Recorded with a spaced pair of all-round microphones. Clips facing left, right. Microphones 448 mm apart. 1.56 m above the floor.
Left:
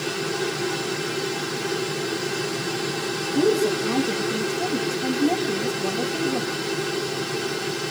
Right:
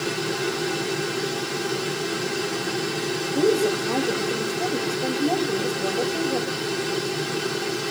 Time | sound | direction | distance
3.4 | a woman speaking | 30° left (ahead or behind) | 3 m